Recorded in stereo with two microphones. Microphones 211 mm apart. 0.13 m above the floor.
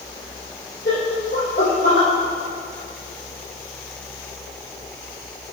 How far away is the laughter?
About 4 m.